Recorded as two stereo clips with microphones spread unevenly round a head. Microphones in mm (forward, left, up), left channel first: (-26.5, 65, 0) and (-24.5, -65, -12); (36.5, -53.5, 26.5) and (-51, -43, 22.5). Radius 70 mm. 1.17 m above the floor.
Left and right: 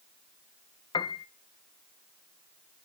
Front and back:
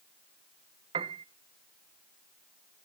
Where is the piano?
150° left, 0.7 m.